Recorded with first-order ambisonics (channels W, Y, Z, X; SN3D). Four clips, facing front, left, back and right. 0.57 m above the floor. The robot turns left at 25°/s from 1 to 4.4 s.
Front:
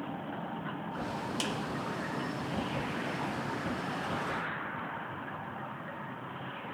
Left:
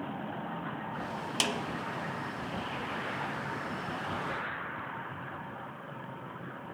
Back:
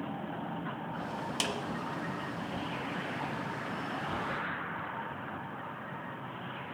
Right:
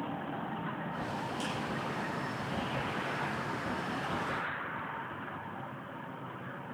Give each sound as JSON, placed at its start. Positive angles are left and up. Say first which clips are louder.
{"t": 1.4, "sound": "a snare drum", "louder": "left 9 dB, back 2 dB", "azimuth_deg": 105, "distance_m": 0.6}